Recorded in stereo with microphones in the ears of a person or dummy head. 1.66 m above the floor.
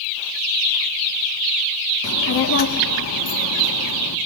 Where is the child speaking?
60° left (ahead or behind), 2.0 m; by 4.2 s 55° left (ahead or behind), 2 m.